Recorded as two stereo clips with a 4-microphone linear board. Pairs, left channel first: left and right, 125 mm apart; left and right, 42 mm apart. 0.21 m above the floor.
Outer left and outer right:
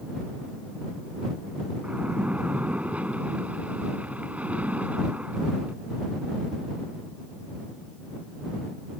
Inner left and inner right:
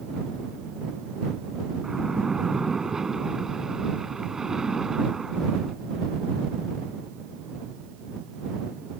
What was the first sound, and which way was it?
A splash, 10° right (ahead or behind).